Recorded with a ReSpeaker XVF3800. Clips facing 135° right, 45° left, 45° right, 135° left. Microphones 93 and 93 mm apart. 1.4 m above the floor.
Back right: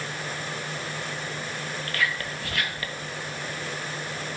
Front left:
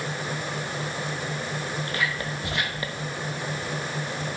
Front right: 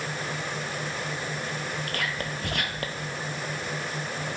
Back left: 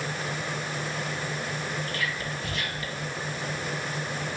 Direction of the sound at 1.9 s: 25° right.